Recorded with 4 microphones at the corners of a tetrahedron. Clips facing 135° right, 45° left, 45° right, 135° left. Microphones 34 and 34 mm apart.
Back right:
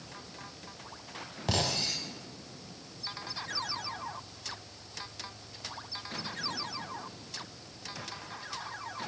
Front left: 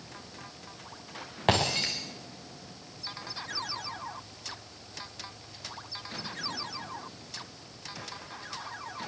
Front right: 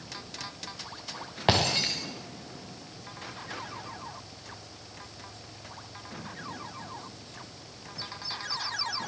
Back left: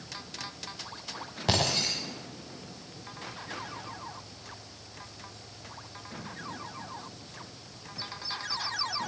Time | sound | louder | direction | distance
1.5 | breaking glass | front left 5 dB, front right 3 dB | 5° left | 6 m